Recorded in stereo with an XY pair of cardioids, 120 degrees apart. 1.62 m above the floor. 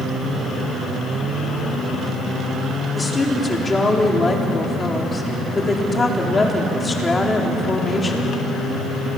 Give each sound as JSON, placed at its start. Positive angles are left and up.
{"t": 3.0, "sound": "a woman speaking", "azimuth_deg": 25, "distance_m": 4.0}